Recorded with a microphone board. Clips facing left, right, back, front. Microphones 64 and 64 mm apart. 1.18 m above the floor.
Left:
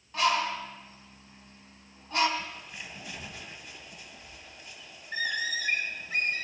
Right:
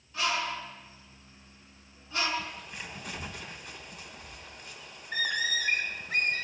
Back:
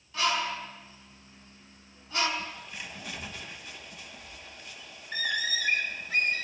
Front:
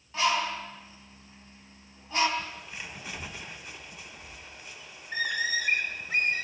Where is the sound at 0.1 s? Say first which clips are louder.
Left 4 dB, front 2 dB; 50° left, 3 m.